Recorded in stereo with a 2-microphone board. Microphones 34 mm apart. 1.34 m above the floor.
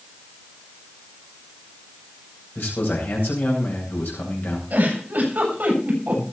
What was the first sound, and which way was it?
A man speaking, 70° left (ahead or behind).